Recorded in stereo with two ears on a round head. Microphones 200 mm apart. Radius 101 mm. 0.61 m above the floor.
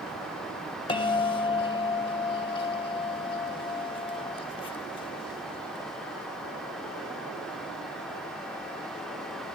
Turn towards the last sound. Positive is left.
turn(degrees=20)  # may be behind; listen again after turning